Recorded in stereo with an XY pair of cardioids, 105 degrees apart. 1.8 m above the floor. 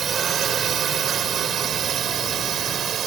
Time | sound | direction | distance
0.0 | a drone | 55° right | ?